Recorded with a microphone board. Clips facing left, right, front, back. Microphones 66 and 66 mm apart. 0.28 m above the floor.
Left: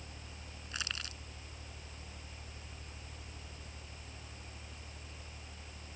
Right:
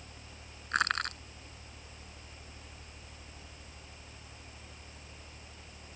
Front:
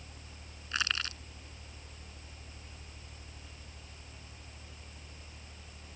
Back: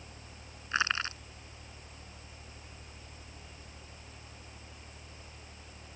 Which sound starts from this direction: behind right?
Crushing, at 0.7 s.